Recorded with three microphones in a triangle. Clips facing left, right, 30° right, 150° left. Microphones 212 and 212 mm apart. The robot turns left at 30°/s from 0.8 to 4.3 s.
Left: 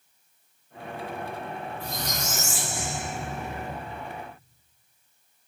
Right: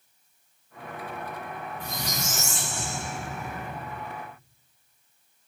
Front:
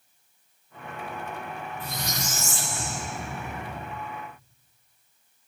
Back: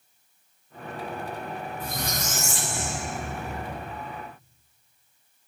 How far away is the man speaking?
I don't hear a man speaking.